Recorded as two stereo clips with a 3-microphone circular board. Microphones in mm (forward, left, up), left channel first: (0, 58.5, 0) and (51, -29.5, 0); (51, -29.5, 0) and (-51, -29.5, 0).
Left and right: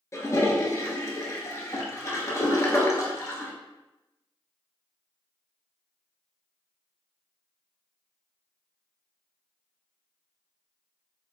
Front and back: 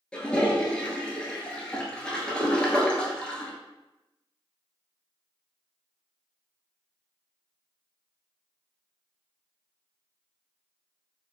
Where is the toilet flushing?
75° left, 0.6 m.